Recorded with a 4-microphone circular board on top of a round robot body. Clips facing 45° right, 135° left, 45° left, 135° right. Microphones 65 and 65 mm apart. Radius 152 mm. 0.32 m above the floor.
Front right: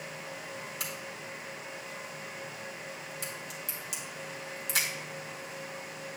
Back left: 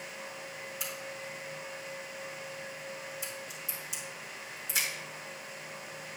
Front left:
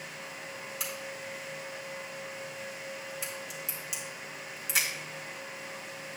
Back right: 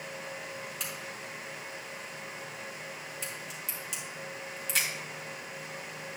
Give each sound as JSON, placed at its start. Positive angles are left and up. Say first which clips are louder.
{"t": 0.8, "sound": "a crack", "louder": "even, front left 1 dB", "azimuth_deg": -40, "distance_m": 3.0}